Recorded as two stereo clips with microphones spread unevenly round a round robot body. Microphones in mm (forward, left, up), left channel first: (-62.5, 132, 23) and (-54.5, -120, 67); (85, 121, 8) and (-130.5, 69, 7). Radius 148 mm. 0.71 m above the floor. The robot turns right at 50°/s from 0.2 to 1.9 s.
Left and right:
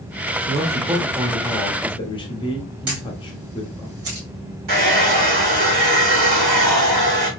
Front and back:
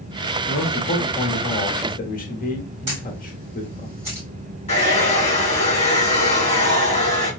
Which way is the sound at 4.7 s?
60° right.